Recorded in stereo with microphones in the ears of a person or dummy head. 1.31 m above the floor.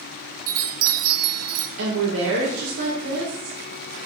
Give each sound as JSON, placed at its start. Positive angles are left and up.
{"t": 0.5, "sound": "a chime", "side_deg": -60, "distance_m": 0.7}
{"t": 1.8, "sound": "a woman speaking", "side_deg": -75, "distance_m": 1.7}